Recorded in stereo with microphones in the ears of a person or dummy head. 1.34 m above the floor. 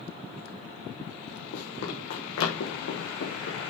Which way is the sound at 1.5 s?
55° left (ahead or behind).